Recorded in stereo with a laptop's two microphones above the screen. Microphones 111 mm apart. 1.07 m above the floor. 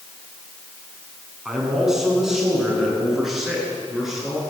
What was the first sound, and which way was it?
A man speaking, 5° right (ahead or behind).